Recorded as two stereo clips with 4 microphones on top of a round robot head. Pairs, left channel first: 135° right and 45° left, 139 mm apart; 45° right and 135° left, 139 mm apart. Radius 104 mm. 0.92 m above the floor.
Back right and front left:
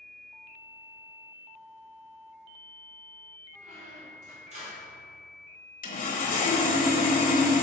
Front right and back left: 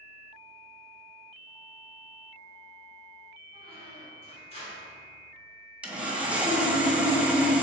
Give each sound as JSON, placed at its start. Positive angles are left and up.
{"t": 3.5, "sound": "a squeak", "azimuth_deg": 5, "distance_m": 1.9}
{"t": 5.8, "sound": "sawing", "azimuth_deg": -145, "distance_m": 1.2}